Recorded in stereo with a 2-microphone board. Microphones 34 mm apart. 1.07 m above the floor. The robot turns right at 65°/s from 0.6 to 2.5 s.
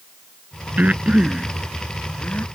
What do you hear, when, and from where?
0.8 s breathing: 55° right (ahead or behind); by 2.5 s 55° left (ahead or behind)